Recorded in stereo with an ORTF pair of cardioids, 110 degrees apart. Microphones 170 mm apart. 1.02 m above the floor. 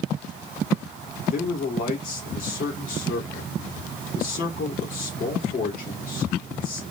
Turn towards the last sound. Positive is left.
turn(degrees=55)